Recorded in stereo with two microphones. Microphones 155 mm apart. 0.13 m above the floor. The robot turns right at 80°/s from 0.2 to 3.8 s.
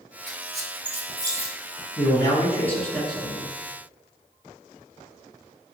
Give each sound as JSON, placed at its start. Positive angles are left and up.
{"t": 0.3, "sound": "a squeak", "side_deg": -65, "distance_m": 0.6}
{"t": 2.0, "sound": "a man speaking", "side_deg": 25, "distance_m": 1.4}